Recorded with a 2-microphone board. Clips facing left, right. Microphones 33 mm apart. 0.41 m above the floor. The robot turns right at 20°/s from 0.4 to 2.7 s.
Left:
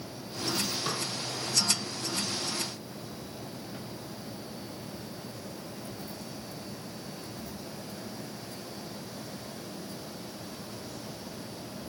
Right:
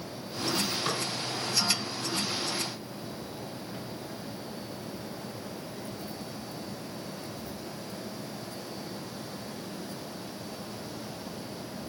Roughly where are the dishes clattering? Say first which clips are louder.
Right 2 dB; centre.